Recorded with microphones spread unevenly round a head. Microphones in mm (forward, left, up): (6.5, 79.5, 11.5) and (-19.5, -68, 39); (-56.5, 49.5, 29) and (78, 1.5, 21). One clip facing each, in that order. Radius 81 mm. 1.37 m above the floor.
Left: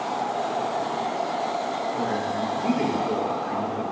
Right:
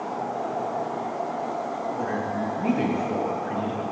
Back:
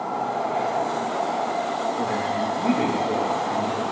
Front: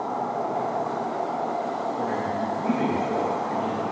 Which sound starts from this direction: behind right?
A woman speaking, at 1.9 s.